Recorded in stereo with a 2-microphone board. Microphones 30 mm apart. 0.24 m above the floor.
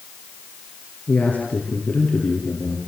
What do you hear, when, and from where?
1.1 s a man speaking: 65° left (ahead or behind), 5.5 m